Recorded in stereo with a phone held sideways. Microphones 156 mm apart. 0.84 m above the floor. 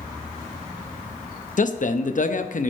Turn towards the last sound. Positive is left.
turn(degrees=55)  # may be behind; listen again after turning